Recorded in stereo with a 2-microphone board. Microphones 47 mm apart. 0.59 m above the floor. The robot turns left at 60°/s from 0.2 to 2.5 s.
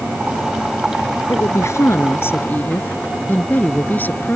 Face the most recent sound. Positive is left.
turn(degrees=40)